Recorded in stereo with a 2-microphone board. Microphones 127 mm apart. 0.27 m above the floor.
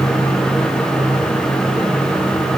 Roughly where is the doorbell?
No doorbell in this recording.